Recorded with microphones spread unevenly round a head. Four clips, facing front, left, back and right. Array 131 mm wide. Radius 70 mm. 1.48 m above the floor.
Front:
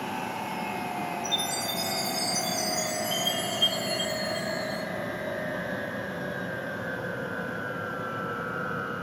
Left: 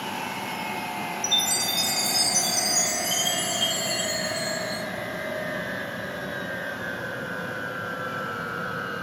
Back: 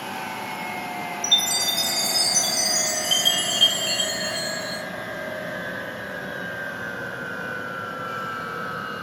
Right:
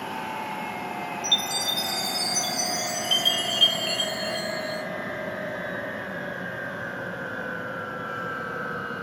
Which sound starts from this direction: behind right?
A chime, at 1.2 s.